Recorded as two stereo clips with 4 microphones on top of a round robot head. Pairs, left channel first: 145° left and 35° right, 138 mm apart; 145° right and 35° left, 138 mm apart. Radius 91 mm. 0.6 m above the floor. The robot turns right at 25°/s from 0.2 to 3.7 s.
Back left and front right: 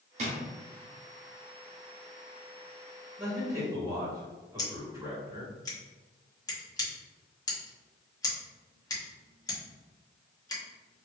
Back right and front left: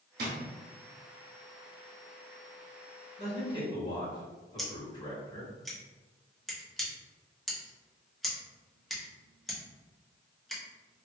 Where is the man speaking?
110° right, 1.7 m; by 5.5 s 95° right, 1.7 m.